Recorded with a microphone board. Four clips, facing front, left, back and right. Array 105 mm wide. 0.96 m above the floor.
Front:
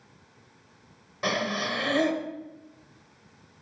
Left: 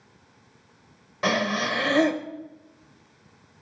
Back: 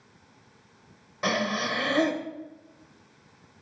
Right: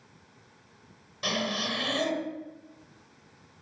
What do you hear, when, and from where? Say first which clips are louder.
1.2 s breathing: left 7 dB, back 1 dB; 95° left, 0.8 m